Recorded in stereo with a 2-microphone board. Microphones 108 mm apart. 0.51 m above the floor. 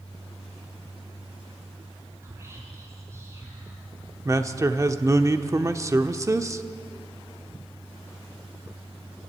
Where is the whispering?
25° right (ahead or behind), 6.5 m.